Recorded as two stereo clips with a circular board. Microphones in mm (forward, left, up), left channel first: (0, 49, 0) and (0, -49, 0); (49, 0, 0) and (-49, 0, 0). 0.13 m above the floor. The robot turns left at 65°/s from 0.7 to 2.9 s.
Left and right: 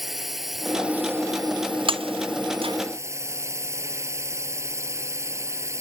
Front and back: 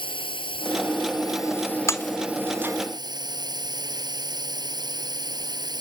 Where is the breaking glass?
60° right; by 2.8 s 120° right.